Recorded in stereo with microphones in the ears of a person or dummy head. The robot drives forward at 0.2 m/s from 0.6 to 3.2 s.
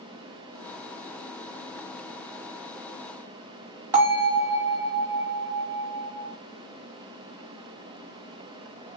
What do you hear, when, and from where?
3.9 s a bell: 15° right (ahead or behind), 1.4 m